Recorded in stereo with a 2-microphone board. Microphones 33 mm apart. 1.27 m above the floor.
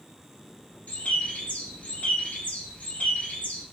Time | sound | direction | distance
0.9 | a bird | 45° left (ahead or behind) | 0.6 m